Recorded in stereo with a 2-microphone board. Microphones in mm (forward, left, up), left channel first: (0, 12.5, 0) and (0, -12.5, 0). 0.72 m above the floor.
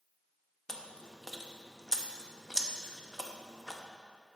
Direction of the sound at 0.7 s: 20° left (ahead or behind).